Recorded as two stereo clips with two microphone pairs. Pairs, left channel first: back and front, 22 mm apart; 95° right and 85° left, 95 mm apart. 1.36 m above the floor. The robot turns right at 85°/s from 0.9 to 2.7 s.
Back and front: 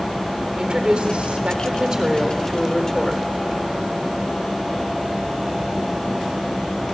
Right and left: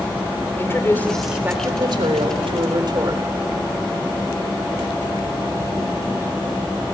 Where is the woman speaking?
35° right, 3.5 m; by 3.2 s 120° left, 3.5 m.